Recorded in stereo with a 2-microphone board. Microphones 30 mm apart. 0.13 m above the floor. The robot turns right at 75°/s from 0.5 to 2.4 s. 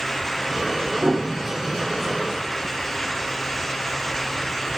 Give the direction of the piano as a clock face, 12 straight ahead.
2 o'clock.